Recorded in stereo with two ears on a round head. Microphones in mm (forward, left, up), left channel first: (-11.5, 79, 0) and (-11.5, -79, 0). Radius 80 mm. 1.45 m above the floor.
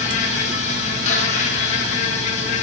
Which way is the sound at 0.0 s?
40° left (ahead or behind).